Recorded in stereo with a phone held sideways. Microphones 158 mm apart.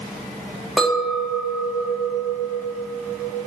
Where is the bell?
I don't hear a bell.